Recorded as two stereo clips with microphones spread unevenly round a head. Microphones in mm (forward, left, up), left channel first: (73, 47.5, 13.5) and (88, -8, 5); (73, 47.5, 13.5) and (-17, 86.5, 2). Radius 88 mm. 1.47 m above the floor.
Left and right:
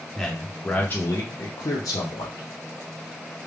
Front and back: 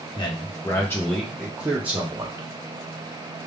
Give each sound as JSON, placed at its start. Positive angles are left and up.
{"t": 0.1, "sound": "a man speaking", "azimuth_deg": 15, "distance_m": 1.1}